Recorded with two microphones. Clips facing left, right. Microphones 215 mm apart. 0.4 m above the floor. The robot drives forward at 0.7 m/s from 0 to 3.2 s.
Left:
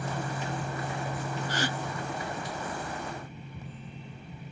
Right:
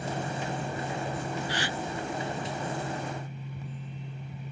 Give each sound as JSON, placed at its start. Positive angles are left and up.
{"t": 1.5, "sound": "a gasp", "side_deg": 50}